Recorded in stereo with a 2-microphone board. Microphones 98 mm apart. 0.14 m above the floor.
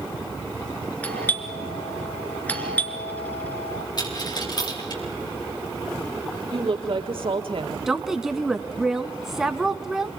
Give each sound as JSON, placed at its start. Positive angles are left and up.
{"t": 1.0, "sound": "a doorbell", "side_deg": 15, "distance_m": 2.5}
{"t": 4.0, "sound": "a dropped coin", "side_deg": 45, "distance_m": 5.5}
{"t": 6.5, "sound": "a woman speaking", "side_deg": -70, "distance_m": 3.5}
{"t": 7.9, "sound": "a woman speaking", "side_deg": -5, "distance_m": 1.0}